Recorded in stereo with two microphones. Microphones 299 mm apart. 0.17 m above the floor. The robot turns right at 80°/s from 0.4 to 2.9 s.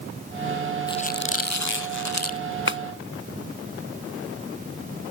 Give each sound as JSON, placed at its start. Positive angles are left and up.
{"t": 0.9, "sound": "a squeak", "azimuth_deg": 15}
{"t": 2.7, "sound": "a clap", "side_deg": 45}